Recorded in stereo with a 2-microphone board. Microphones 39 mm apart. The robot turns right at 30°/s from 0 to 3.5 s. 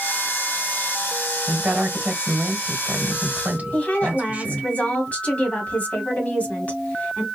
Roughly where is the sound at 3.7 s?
Left.